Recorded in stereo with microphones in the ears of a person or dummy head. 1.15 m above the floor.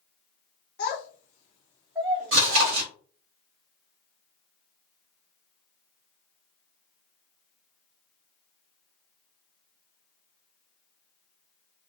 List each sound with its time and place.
0.8 s a child speaking: 50° left (ahead or behind), 0.9 m; by 2.8 s 60° right (ahead or behind), 0.8 m
2.3 s chewing: 60° right (ahead or behind), 0.8 m